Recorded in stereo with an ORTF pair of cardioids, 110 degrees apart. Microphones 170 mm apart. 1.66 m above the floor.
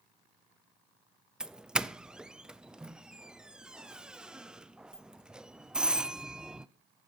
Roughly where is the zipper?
No zipper in this recording.